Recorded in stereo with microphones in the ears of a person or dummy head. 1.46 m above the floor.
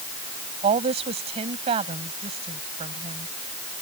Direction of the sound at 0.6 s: 30° right (ahead or behind).